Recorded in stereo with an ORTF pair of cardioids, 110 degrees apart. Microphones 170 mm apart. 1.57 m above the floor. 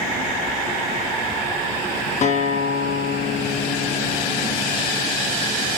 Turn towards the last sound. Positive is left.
turn(degrees=45)